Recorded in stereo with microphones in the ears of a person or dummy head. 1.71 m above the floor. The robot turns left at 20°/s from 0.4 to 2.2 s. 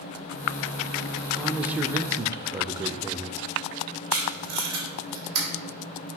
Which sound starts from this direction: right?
Tape being pulled, at 4.1 s.